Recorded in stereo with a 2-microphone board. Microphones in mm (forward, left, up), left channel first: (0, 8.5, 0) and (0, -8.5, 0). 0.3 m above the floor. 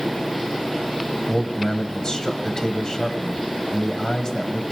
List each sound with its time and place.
1.3 s a man speaking: 45° left (ahead or behind), 1.7 m